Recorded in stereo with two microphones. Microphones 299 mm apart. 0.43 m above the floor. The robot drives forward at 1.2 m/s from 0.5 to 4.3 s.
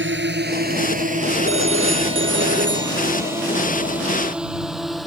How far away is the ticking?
No ticking in this recording.